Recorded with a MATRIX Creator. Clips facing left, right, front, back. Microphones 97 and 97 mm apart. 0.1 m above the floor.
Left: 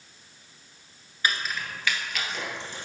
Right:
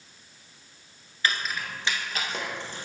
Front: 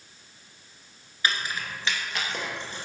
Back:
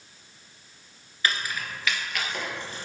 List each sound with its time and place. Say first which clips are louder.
1.2 s keys jangling: even, even; 40° left, 1.1 m; by 2.9 s 60° right, 2.5 m